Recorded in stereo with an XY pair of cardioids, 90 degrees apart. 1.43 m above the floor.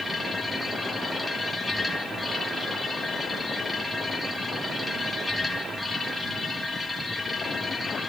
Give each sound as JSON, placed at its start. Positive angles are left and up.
{"t": 0.0, "sound": "a machine running", "azimuth_deg": 5, "distance_m": 7.0}